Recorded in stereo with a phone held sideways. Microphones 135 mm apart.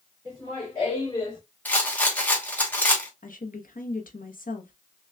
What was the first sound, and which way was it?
Laughter, 35° left (ahead or behind).